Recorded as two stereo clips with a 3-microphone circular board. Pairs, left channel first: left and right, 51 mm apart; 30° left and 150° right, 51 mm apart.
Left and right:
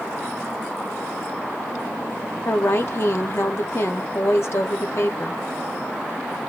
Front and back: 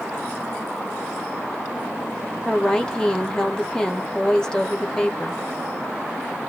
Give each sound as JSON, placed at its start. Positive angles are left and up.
{"t": 2.5, "sound": "a woman speaking", "azimuth_deg": 100, "distance_m": 0.7}